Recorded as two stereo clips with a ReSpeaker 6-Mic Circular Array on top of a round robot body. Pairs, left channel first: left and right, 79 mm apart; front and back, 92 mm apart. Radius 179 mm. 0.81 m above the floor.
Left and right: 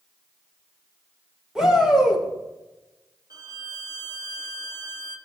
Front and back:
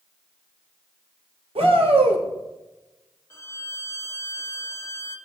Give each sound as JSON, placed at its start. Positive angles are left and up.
{"t": 1.6, "sound": "a shout", "azimuth_deg": -175, "distance_m": 3.0}
{"t": 3.3, "sound": "a violin", "azimuth_deg": -55, "distance_m": 1.6}